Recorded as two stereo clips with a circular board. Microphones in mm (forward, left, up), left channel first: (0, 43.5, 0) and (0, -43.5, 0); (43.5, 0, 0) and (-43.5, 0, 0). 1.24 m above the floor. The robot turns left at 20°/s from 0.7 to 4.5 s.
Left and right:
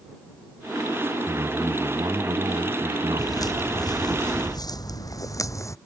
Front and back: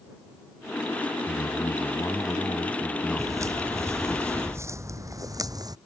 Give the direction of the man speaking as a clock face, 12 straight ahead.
1 o'clock.